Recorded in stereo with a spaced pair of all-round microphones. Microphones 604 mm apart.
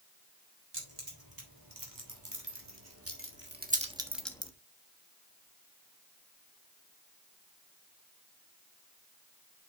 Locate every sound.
0.7 s keys jangling: 35° right (ahead or behind), 4 m; by 4.5 s 10° left (ahead or behind), 1.1 m